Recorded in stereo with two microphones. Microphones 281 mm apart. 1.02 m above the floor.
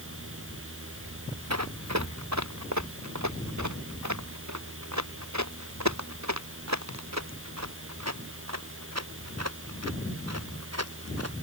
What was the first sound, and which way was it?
Running footsteps, 65° right (ahead or behind).